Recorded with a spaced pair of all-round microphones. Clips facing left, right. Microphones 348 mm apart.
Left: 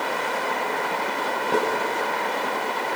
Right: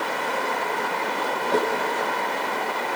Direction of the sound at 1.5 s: 35° left (ahead or behind).